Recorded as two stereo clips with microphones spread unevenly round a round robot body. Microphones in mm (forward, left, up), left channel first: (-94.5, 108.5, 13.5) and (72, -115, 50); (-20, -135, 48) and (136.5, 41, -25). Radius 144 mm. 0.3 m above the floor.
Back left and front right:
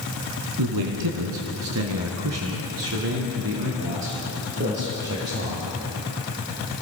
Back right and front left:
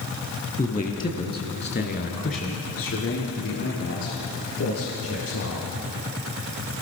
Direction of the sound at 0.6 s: 65° right.